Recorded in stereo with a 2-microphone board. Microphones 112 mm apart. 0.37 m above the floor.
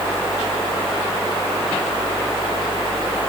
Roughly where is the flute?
I don't hear a flute.